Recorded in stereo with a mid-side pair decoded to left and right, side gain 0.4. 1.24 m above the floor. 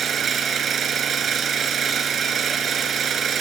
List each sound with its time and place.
0.0 s an engine running: 60° right, 6 m